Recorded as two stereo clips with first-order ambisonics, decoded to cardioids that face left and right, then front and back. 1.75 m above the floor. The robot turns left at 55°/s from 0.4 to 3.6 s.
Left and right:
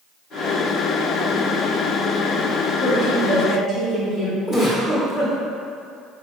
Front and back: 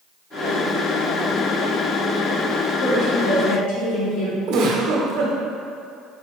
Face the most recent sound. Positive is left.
turn(degrees=160)